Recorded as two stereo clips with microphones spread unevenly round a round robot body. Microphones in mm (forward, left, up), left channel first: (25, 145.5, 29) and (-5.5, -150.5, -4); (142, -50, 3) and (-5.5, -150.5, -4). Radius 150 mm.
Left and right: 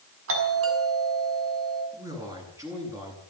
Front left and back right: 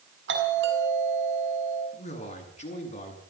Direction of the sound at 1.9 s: 15° right.